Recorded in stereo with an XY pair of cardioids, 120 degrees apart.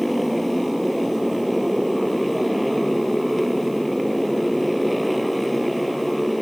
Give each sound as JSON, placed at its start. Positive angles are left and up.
{"t": 0.0, "sound": "a motorcycle", "azimuth_deg": 0}